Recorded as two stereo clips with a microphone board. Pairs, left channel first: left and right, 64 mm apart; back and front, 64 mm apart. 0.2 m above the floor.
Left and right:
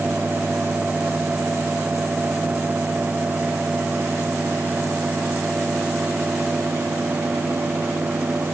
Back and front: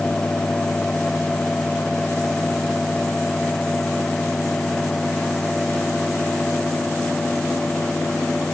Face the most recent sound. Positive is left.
No sound to turn to.